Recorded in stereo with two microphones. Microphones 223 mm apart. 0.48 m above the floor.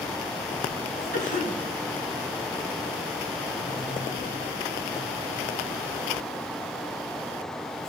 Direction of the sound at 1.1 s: 35° left (ahead or behind).